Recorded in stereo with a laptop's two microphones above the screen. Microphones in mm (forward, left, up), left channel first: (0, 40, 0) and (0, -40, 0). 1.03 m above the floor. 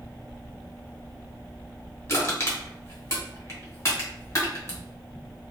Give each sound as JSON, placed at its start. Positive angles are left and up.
{"t": 2.1, "sound": "crushing", "side_deg": 35, "distance_m": 0.9}